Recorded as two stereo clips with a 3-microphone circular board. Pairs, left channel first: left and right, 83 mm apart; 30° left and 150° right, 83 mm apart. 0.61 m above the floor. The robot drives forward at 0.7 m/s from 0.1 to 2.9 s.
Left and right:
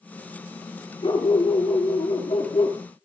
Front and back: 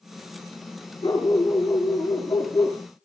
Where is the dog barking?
70° left, 4.5 m; by 2.8 s 85° left, 4 m.